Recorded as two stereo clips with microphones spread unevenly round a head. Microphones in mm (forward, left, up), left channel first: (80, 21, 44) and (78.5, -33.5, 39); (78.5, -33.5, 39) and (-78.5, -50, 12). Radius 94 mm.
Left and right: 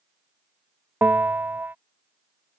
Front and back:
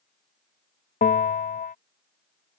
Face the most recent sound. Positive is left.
turn(degrees=-35)